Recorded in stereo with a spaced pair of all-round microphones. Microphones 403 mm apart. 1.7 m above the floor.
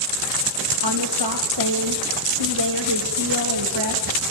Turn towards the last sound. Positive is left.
turn(degrees=-90)